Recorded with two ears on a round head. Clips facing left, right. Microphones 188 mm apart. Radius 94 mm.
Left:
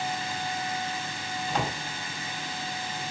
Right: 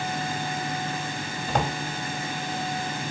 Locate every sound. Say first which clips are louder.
1.5 s a drawer: right 4 dB; 45° right (ahead or behind), 2.5 m